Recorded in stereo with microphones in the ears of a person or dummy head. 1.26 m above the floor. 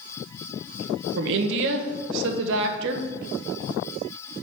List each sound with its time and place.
1.2 s a woman speaking: 70° right (ahead or behind), 0.9 m